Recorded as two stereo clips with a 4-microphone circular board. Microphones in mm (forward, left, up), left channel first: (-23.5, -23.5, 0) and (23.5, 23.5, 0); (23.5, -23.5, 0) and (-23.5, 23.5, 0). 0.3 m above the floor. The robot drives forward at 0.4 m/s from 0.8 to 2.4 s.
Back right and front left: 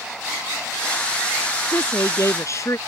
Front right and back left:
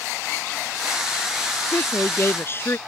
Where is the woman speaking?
90° right; by 2.8 s 95° right.